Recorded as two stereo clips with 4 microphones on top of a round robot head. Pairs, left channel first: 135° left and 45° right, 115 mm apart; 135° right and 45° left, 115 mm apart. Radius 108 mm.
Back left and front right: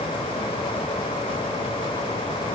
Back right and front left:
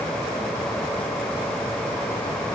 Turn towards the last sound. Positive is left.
No sound to turn to.